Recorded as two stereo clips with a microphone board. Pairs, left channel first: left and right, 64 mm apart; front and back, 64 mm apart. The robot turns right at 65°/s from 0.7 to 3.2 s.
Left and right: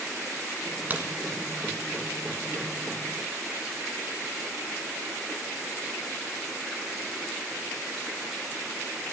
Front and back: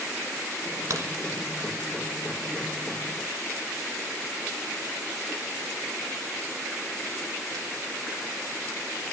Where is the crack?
150° right, 1.3 m; by 1.1 s 140° right, 1.3 m.